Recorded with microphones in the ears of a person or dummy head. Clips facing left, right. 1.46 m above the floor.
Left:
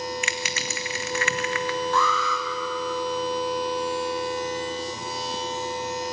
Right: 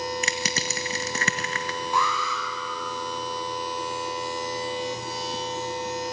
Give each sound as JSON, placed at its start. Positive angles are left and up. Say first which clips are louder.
{"t": 0.2, "sound": "crushing", "louder": "right 1 dB", "side_deg": -35, "distance_m": 1.3}
{"t": 1.9, "sound": "an alarm", "louder": "left 3 dB", "side_deg": -15, "distance_m": 4.0}